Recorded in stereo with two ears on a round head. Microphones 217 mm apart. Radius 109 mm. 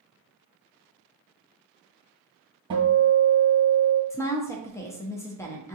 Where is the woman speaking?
10° left (ahead or behind), 0.6 m.